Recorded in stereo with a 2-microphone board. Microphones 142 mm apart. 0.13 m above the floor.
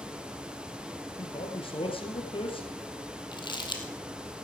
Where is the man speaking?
40° left (ahead or behind), 3 m.